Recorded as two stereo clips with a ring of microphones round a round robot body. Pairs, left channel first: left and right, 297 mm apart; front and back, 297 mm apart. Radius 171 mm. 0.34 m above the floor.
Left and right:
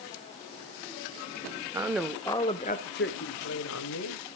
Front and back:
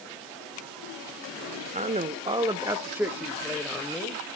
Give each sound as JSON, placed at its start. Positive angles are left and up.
{"t": 1.7, "sound": "a man speaking", "azimuth_deg": -155, "distance_m": 1.1}